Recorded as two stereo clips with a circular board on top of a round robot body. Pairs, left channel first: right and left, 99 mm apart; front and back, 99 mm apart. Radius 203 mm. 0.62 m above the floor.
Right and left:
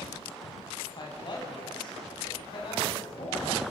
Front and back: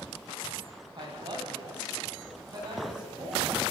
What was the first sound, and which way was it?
A woman speaking, 135° right.